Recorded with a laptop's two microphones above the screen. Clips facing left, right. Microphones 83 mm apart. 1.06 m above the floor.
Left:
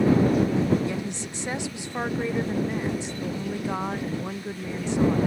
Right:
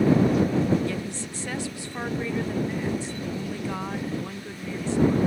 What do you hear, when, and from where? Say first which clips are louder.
0.9 s a woman speaking: left 1 dB; 20° left (ahead or behind)